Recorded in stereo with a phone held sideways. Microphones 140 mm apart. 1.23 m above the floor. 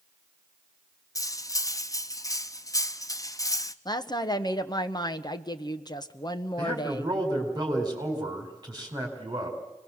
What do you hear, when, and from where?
1.1 s cutlery clinking: 25° left (ahead or behind), 0.6 m
3.9 s a woman speaking: 30° left (ahead or behind), 1.1 m
6.6 s a man speaking: 30° right (ahead or behind), 4.5 m